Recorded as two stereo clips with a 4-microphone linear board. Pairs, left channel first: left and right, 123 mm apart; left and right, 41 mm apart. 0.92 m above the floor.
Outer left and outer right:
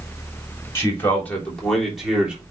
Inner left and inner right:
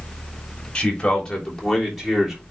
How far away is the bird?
No bird in this recording.